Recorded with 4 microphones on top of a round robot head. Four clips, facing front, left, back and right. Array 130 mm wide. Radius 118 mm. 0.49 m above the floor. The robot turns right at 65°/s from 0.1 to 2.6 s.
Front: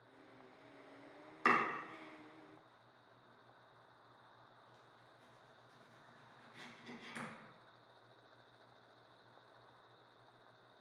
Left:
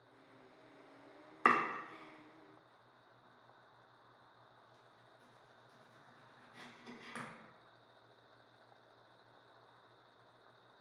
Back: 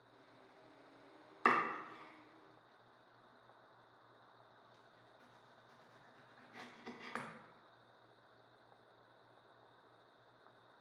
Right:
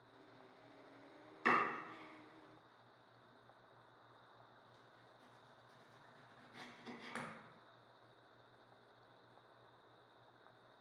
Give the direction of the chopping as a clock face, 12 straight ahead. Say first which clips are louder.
Left 4 dB, even; 8 o'clock.